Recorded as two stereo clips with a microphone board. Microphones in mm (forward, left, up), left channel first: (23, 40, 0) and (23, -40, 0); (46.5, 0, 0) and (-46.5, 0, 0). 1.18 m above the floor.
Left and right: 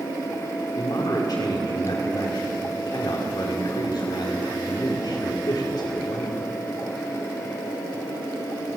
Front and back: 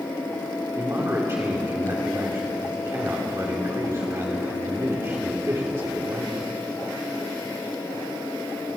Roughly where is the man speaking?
Behind left.